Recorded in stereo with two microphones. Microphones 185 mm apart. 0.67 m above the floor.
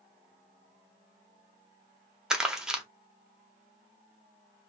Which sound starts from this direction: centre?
Crumpling, at 2.3 s.